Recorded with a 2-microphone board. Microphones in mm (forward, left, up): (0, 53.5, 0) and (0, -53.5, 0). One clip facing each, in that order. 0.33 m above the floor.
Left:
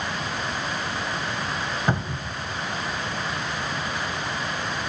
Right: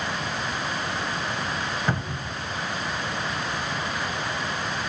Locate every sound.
1.9 s a cupboard door: 20° left (ahead or behind), 0.5 m